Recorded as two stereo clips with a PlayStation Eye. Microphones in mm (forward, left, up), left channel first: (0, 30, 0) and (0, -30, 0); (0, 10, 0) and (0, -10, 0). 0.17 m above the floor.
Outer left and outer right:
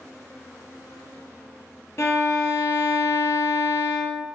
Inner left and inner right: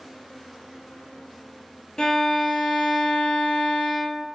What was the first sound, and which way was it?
A violin, 45° left (ahead or behind).